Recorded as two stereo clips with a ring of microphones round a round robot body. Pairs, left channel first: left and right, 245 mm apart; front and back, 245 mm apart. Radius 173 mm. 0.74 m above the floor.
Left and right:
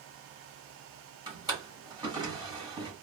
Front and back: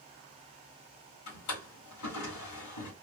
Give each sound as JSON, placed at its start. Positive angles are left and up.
{"t": 1.3, "sound": "a drawer", "azimuth_deg": -15, "distance_m": 1.7}